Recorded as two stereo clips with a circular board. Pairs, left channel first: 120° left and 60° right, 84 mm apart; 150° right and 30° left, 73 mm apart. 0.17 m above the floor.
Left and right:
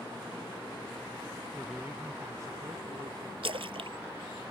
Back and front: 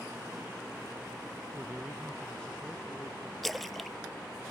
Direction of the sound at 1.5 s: 40° left.